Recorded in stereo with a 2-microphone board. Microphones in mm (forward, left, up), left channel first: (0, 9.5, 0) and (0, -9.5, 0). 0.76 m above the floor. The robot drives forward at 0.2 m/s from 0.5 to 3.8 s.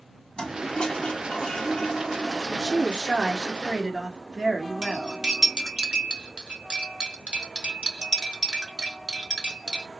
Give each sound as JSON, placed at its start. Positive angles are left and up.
{"t": 0.4, "sound": "a toilet flushing", "side_deg": 50, "distance_m": 1.0}
{"t": 2.5, "sound": "a woman speaking", "side_deg": -50, "distance_m": 1.4}
{"t": 4.8, "sound": "cutlery clinking", "side_deg": -70, "distance_m": 0.9}